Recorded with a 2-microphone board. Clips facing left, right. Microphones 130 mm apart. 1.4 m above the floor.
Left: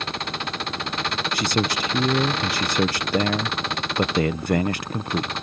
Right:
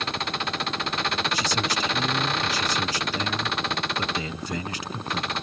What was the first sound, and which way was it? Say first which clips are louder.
A man speaking: left 3 dB; 65° left (ahead or behind).